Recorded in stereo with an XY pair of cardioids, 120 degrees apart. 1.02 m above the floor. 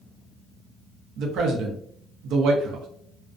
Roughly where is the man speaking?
Right.